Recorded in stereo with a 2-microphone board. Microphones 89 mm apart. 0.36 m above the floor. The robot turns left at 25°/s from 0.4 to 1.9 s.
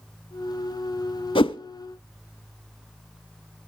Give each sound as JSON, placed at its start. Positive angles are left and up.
{"t": 1.4, "sound": "a whoosh", "side_deg": 75, "distance_m": 0.5}